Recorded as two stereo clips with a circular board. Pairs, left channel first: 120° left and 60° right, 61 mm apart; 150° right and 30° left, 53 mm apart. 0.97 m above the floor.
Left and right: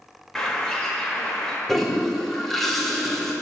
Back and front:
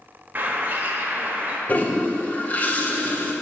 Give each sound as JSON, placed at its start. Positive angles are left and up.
{"t": 0.3, "sound": "a bird", "azimuth_deg": 45, "distance_m": 0.8}
{"t": 1.7, "sound": "a toilet flushing", "azimuth_deg": -155, "distance_m": 0.6}